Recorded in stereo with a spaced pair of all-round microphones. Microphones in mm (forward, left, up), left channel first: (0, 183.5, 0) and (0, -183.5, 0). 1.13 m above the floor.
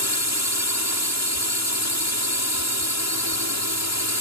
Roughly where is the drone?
Left.